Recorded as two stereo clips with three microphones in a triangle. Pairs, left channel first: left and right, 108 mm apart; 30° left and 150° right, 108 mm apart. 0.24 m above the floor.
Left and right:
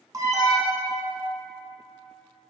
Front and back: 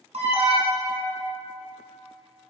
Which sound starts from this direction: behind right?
An alarm, at 0.1 s.